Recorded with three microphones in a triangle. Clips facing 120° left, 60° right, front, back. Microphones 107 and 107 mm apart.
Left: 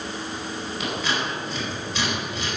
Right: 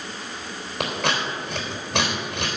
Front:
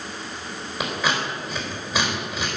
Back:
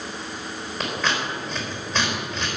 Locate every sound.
0.8 s scissors: 80° right, 3.5 m